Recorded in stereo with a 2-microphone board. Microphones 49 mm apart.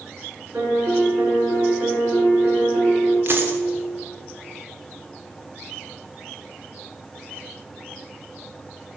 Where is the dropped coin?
50° right (ahead or behind), 1.1 m.